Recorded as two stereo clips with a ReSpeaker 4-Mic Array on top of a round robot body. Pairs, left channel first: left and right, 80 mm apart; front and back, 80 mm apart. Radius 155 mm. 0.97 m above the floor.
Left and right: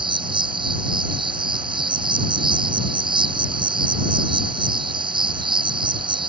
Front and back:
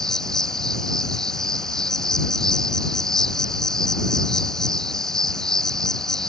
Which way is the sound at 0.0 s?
85° right.